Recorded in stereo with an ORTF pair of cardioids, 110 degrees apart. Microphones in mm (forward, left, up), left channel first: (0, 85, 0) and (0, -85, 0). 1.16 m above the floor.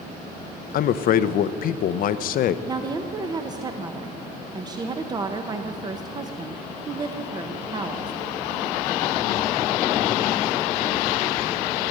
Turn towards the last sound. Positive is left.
turn(degrees=-25)